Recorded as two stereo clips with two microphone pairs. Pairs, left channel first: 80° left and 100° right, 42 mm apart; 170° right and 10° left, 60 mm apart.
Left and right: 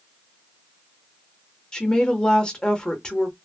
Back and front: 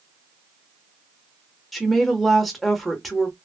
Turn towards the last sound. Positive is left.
turn(degrees=105)